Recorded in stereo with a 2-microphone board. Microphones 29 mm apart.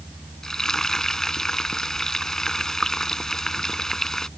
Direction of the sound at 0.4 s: 20° left (ahead or behind).